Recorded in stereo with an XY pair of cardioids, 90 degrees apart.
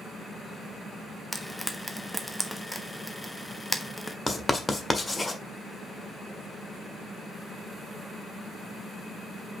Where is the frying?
10° left, 1.1 m.